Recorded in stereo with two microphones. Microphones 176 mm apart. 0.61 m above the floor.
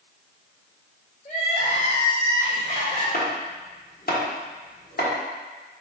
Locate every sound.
1.2 s crying: 45° left (ahead or behind), 1.6 m
3.1 s chopping: 60° left (ahead or behind), 1.1 m